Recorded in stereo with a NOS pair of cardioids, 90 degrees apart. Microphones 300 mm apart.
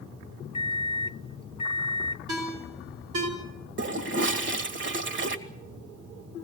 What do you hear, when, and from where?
0.5 s a microwave: 20° left, 0.8 m
2.3 s a ringtone: 65° right, 5.5 m
3.8 s a toilet flushing: 40° right, 1.9 m